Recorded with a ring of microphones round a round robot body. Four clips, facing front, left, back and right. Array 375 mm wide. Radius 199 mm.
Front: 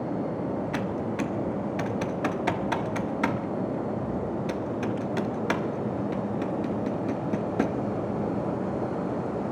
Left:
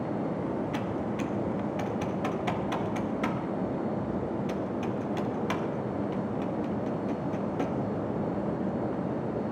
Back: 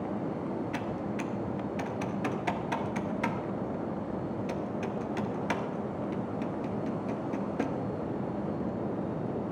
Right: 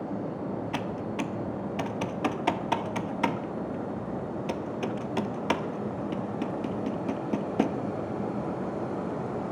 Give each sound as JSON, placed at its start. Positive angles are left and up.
{"t": 0.7, "sound": "typing on a keyboard", "azimuth_deg": -55, "distance_m": 0.8}